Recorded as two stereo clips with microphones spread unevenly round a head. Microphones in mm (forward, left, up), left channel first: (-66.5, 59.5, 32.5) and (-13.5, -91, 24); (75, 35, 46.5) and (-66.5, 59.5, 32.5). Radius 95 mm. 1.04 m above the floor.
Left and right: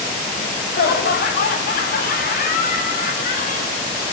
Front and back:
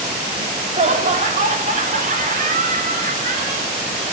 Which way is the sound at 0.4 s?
125° left.